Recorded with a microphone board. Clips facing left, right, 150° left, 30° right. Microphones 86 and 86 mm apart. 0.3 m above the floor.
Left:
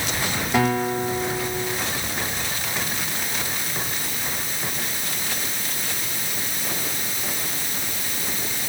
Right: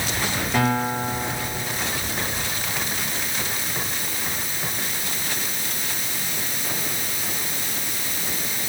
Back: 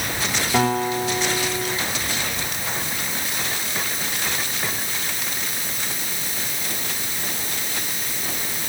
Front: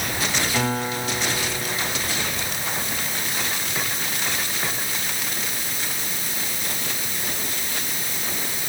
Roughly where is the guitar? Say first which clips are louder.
Left 1 dB, back 8 dB; behind.